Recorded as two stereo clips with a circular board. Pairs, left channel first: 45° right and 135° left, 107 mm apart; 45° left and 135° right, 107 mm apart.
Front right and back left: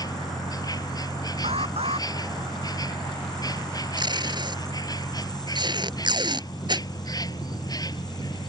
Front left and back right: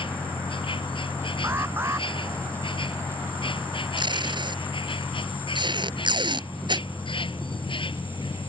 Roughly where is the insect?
Ahead.